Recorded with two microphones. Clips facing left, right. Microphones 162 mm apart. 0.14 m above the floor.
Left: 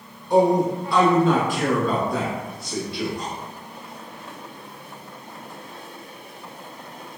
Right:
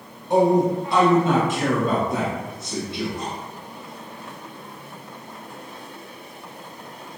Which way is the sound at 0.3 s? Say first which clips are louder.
Even; 20° right (ahead or behind).